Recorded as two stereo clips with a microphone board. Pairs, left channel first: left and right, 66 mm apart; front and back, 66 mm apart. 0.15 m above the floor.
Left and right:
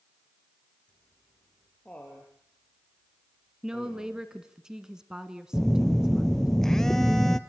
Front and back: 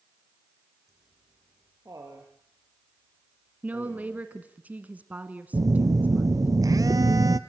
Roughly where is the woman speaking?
Behind right.